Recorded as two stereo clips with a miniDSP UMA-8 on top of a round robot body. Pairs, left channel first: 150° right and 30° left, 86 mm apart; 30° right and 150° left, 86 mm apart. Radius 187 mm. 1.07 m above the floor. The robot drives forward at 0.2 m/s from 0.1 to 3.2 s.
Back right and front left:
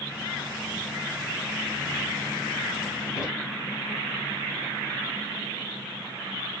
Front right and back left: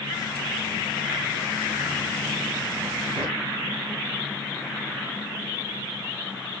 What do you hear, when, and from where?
3.2 s a drawer: 155° left, 5.5 m